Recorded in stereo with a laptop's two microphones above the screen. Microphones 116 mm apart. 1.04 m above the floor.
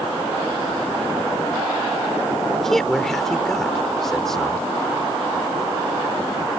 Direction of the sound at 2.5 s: 5° left (ahead or behind).